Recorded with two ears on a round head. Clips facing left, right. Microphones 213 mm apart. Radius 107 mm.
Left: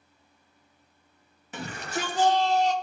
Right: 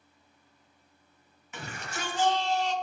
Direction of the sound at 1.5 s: 30° left (ahead or behind).